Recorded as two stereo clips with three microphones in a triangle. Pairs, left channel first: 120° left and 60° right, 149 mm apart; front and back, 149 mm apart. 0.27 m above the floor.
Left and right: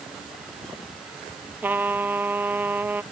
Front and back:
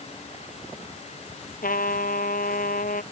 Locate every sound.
1.6 s a trumpet: 15° left